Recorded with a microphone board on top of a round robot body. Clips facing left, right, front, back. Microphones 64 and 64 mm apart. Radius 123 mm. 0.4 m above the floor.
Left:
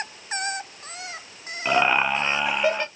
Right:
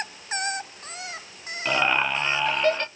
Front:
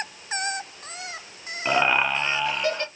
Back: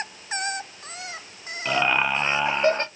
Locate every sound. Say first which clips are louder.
1.6 s laughter: left 3 dB, front 1 dB; 30° left, 0.8 m; by 2.9 s 165° left, 1.0 m